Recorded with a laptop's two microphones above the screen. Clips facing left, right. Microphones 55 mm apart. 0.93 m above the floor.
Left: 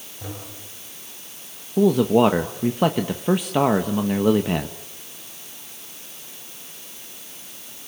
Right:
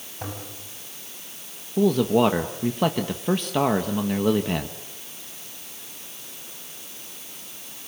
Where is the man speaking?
10° left (ahead or behind), 1.2 m.